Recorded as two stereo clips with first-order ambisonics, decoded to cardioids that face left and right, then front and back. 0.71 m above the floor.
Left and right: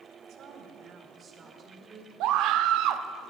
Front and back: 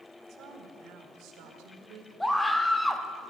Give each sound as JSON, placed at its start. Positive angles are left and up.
{"t": 0.3, "sound": "a woman speaking", "azimuth_deg": -135, "distance_m": 1.8}
{"t": 2.2, "sound": "a scream", "azimuth_deg": -85, "distance_m": 0.7}